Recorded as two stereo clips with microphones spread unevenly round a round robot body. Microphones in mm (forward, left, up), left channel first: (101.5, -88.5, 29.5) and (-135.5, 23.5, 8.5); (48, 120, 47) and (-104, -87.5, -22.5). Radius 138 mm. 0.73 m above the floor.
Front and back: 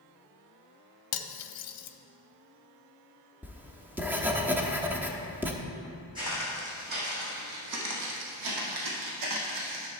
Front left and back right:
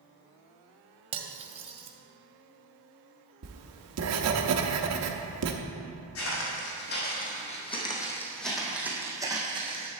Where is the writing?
125° right, 0.9 m.